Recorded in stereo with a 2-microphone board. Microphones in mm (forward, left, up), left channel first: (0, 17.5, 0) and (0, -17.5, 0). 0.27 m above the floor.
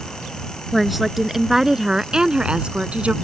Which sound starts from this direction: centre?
A woman speaking, at 0.7 s.